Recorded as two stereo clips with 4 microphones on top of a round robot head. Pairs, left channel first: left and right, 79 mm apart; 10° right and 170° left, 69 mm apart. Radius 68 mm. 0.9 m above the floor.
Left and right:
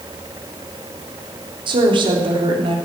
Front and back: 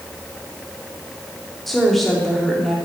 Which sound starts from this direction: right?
A woman speaking, at 1.7 s.